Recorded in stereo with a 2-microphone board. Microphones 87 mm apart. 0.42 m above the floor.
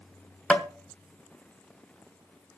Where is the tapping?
15° left (ahead or behind), 1.2 m.